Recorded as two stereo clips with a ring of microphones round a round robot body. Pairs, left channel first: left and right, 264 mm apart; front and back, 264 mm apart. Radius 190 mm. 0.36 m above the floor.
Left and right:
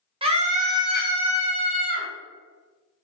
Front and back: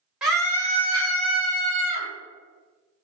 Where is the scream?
100° right, 0.8 m; by 2.1 s 45° right, 1.5 m.